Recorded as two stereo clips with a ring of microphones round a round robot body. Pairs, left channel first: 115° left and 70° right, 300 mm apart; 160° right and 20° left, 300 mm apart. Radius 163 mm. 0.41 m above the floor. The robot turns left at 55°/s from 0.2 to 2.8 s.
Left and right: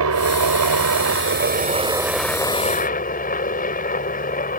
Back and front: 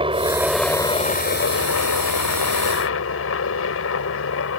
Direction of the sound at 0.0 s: 45° right.